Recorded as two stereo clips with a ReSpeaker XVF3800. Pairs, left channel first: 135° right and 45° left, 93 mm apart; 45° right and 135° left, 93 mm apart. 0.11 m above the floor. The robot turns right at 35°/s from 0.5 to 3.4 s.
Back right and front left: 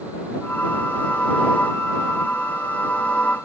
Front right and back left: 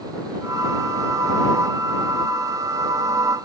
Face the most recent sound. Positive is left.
No sound to turn to.